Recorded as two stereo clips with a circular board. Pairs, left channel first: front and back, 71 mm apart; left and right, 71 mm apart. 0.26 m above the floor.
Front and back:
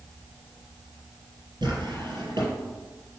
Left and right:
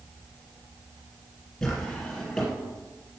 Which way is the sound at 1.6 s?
175° left.